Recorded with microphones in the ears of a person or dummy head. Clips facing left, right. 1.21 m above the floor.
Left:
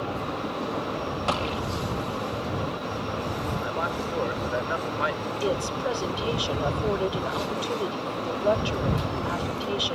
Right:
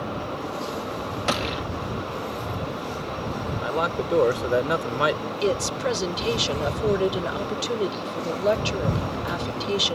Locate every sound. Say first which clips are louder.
1.3 s a gunshot: right 2 dB; 25° right (ahead or behind)
3.6 s a man speaking: right 4 dB; 55° right (ahead or behind)
5.4 s a woman speaking: right 3 dB; 30° right (ahead or behind)